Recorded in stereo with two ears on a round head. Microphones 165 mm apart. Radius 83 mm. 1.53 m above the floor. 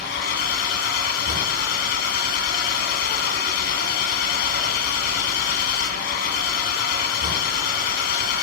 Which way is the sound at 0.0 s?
60° left (ahead or behind).